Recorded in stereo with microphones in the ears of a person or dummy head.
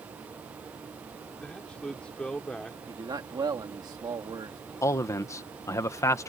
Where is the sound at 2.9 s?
15° right (ahead or behind).